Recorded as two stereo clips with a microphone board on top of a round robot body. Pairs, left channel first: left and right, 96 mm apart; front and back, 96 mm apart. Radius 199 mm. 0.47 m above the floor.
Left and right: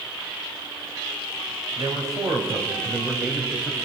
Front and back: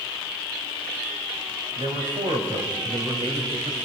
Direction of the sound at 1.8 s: 140° right.